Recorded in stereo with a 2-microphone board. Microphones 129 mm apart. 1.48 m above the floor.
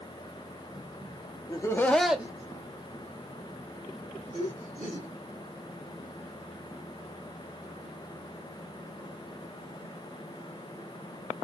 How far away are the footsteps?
No footsteps in this recording.